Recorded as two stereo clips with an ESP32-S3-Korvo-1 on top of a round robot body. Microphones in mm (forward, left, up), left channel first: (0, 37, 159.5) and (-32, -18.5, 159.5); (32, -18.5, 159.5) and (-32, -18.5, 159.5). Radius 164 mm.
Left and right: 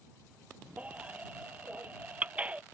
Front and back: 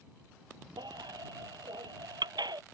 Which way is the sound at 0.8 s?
170° left.